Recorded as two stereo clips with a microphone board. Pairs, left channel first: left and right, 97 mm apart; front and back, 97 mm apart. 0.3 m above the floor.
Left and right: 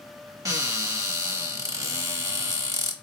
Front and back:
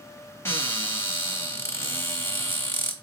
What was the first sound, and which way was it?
A cupboard door, 50° right.